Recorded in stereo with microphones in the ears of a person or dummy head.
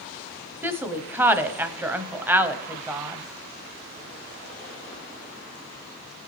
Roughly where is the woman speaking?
Centre.